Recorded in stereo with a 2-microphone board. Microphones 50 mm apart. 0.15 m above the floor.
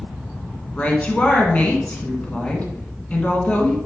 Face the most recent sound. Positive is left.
turn(degrees=25)  # may be behind; listen again after turning